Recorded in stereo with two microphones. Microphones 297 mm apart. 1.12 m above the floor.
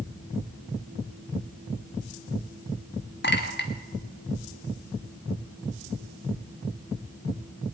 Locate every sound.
3.2 s a clink: 35° left (ahead or behind), 1.4 m